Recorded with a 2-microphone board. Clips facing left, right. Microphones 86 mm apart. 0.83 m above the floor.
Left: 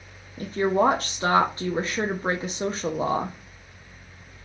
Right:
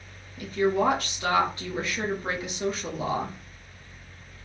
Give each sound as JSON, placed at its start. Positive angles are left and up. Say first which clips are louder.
{"t": 0.4, "sound": "a woman speaking", "louder": "left 2 dB", "side_deg": 30, "distance_m": 0.6}